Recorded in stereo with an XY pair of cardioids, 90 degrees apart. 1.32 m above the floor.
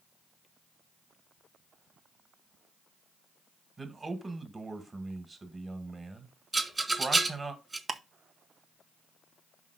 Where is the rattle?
25° right, 2.0 m.